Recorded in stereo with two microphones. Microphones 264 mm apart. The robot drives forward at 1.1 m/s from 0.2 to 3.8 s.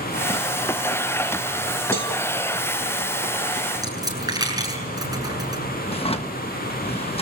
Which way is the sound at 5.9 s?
20° left (ahead or behind).